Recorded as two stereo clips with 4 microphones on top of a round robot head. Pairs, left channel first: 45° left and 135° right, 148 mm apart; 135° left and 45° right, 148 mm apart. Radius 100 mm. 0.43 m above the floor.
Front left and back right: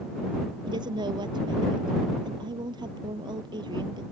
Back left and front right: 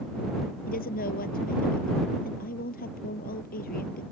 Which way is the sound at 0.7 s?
165° left.